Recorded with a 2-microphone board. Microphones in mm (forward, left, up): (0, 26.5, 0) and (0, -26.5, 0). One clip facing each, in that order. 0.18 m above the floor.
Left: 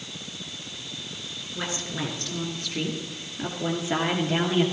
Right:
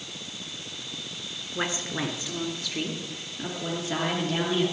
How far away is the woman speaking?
About 2.5 m.